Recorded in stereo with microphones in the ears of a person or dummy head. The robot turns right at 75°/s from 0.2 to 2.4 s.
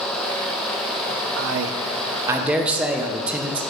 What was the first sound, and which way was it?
A man speaking, 90° right.